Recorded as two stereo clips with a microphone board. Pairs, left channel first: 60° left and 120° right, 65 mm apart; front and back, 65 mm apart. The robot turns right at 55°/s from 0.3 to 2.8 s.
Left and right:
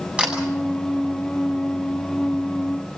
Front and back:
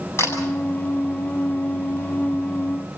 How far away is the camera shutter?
About 8 m.